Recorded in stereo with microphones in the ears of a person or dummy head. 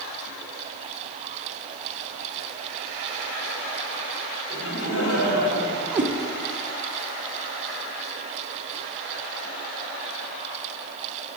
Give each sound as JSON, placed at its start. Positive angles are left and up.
{"t": 4.5, "sound": "laughter", "side_deg": 65, "distance_m": 2.0}
{"t": 5.9, "sound": "a cat meowing", "side_deg": -10, "distance_m": 0.6}